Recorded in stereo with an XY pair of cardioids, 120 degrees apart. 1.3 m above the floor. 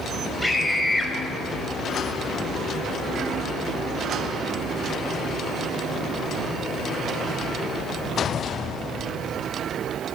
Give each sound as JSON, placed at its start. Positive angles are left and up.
{"t": 0.4, "sound": "a scream", "azimuth_deg": 5, "distance_m": 6.5}